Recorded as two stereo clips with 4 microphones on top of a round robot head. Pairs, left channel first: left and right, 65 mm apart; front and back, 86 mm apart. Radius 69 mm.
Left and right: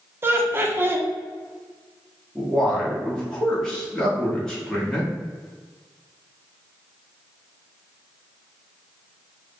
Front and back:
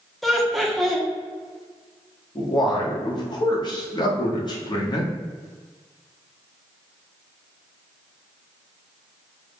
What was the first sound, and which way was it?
Laughter, 90° right.